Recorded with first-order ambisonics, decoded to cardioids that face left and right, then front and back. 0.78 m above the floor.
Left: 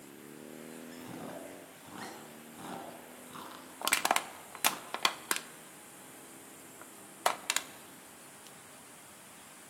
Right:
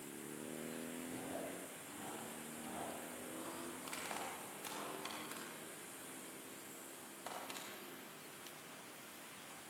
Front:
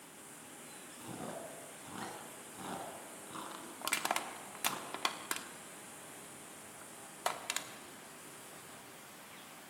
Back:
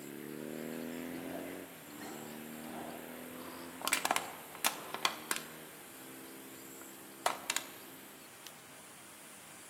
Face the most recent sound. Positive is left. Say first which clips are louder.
# left 18 dB, back 2 dB
turn(degrees=100)